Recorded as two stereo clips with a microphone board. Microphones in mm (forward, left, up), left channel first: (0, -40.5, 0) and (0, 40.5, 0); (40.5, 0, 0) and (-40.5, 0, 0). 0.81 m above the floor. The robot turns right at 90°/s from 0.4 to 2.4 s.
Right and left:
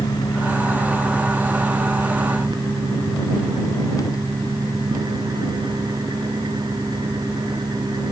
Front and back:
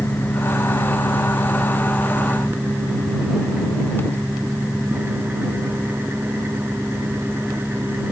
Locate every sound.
0.0 s an engine running: 65° right; by 8.1 s 115° left